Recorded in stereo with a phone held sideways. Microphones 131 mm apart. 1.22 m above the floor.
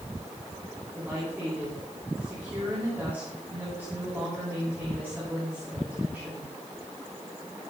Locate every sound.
0.9 s a woman speaking: 15° right (ahead or behind), 3.5 m